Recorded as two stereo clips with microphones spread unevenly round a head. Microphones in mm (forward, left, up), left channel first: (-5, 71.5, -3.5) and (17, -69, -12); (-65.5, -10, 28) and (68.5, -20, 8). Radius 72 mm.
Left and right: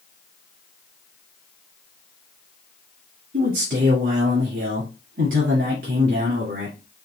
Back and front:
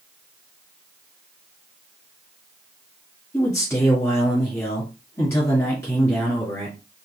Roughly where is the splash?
No splash in this recording.